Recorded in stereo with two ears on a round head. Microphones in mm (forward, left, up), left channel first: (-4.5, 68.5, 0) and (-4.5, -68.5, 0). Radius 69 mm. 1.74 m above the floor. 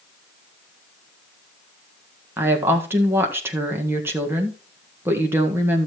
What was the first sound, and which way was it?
A woman speaking, 15° right (ahead or behind).